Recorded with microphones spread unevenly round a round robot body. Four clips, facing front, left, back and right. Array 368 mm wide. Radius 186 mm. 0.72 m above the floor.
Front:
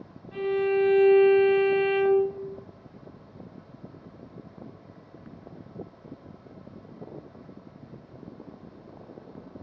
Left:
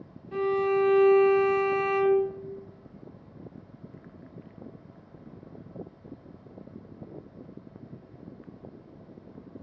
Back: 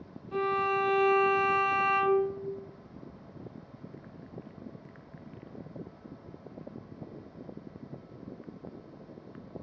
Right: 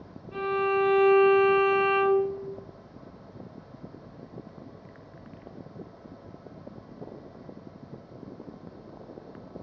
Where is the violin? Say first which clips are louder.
Left 1 dB, front 4 dB; 110° left, 1.9 m.